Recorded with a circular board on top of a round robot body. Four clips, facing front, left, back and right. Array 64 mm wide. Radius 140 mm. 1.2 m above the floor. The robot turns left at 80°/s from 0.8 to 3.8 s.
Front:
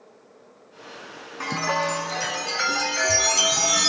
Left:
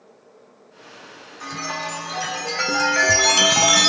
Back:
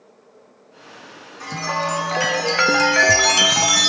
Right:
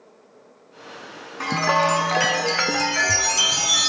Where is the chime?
60° right, 0.6 m; by 3.9 s 105° left, 0.6 m.